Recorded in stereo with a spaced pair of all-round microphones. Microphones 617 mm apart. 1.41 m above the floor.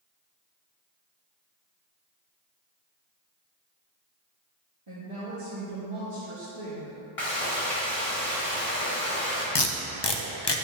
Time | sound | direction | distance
4.9 | a woman speaking | 55° right (ahead or behind) | 1.6 m
7.2 | frying | 60° left (ahead or behind) | 2.5 m
9.6 | tape being pulled | 45° left (ahead or behind) | 0.7 m